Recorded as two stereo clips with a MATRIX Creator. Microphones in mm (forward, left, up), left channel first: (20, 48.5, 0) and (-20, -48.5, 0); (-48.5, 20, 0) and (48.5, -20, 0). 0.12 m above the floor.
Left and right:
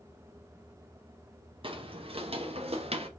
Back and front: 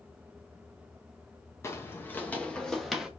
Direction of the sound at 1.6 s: 140° right.